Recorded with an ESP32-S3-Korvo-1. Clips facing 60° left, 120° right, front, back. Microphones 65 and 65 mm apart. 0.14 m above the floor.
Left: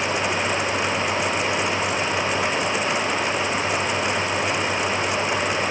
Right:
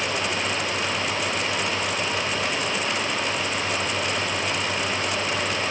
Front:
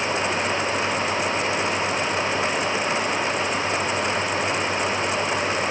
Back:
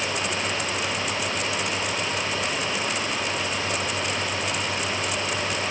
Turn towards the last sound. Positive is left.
No sound to turn to.